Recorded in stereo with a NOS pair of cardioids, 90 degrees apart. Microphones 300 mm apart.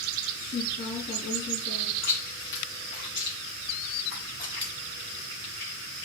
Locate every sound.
0.5 s a woman speaking: 40° left, 3 m
2.0 s chewing: 40° left, 2 m